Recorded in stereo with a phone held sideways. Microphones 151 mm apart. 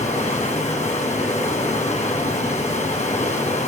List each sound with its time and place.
0.0 s running water: 50° left (ahead or behind), 6.5 m